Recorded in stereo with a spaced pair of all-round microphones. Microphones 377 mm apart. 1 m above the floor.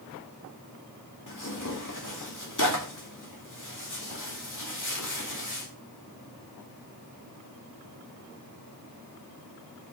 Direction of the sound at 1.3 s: 55° left (ahead or behind).